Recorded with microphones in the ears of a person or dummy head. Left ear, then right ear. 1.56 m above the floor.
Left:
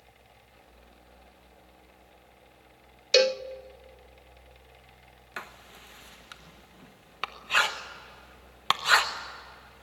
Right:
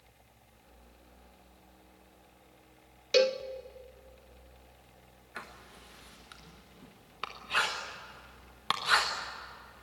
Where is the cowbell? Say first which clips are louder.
Left 4 dB; 25° left (ahead or behind), 0.5 m.